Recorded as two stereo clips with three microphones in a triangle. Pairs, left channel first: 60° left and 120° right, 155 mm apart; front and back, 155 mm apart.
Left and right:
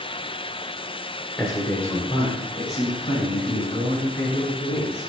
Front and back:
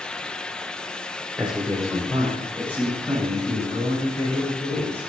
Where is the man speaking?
110° left, 1.1 m; by 5.1 s 70° left, 4.5 m.